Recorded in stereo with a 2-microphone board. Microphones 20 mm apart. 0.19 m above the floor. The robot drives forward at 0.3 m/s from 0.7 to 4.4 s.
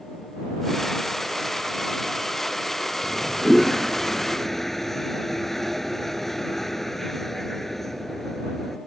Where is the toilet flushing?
10° left (ahead or behind); by 8.8 s 15° left (ahead or behind).